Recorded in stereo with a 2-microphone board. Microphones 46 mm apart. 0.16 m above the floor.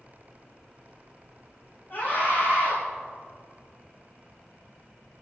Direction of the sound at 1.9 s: 50° left (ahead or behind).